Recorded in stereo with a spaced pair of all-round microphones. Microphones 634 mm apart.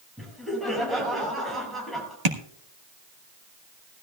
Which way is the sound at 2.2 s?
80° right.